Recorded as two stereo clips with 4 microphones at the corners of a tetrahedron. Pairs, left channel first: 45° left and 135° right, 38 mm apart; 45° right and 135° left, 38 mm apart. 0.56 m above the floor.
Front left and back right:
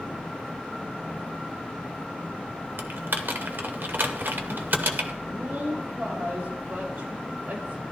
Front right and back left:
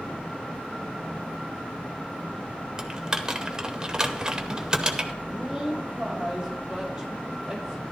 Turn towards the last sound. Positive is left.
turn(degrees=-150)